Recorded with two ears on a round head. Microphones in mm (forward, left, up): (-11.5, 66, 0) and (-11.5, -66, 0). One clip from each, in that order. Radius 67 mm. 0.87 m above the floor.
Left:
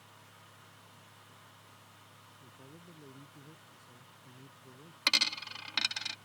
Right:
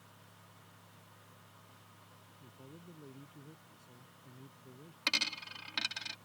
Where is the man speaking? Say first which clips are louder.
Right 1 dB; 10° left (ahead or behind).